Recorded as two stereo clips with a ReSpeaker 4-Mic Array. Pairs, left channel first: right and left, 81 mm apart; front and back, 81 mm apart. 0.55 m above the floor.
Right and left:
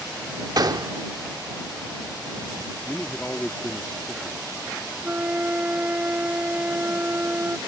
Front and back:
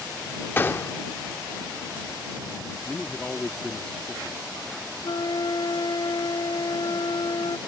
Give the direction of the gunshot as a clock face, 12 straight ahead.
10 o'clock.